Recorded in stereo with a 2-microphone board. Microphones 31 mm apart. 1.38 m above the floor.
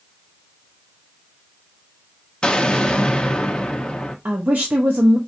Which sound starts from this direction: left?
An explosion, at 2.4 s.